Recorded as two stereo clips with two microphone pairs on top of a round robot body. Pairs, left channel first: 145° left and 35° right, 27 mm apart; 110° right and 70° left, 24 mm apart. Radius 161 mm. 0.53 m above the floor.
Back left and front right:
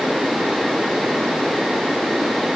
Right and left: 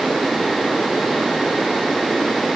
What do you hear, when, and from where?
Only background noise.